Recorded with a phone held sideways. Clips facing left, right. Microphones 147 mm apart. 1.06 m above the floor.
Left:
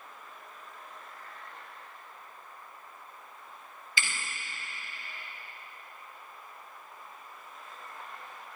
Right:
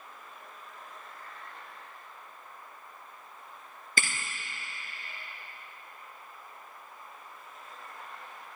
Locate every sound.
4.0 s a thud: 50° right (ahead or behind), 2 m